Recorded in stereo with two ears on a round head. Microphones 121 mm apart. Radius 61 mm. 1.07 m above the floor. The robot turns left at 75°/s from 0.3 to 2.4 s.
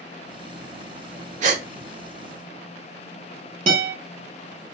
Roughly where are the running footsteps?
I don't hear running footsteps.